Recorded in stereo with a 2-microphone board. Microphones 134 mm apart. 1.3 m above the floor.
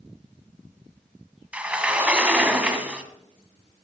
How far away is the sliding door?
About 1.4 m.